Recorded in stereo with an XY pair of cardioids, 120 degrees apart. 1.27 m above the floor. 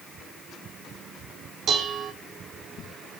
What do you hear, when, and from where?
1.7 s dishes clattering: 55° right, 2.5 m